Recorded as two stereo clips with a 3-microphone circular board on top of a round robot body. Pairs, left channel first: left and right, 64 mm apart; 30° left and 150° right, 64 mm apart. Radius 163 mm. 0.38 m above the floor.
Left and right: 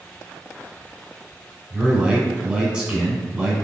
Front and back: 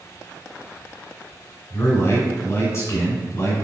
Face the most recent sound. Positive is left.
turn(degrees=-10)